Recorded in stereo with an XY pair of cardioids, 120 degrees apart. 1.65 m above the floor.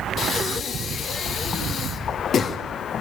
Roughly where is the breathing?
Ahead left.